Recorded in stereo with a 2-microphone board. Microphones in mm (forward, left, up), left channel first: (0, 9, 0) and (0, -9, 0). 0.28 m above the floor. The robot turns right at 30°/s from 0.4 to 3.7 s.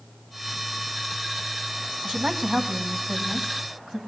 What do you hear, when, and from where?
2.0 s a woman speaking: 100° right, 1.8 m; by 4.0 s 50° right, 1.8 m